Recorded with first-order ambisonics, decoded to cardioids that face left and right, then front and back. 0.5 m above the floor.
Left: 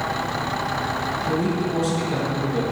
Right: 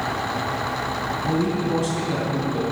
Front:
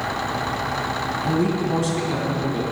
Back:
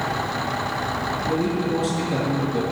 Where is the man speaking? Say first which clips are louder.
Even, front 1 dB; 25° right, 3.5 m.